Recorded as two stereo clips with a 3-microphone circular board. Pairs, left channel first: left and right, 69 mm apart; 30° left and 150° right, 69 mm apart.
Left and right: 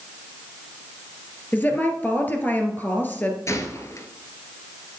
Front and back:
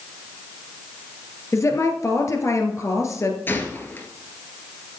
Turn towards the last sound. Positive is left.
turn(degrees=75)